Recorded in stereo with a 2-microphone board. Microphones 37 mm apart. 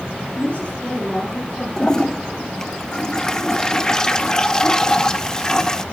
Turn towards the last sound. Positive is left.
turn(degrees=15)  # may be behind; listen again after turning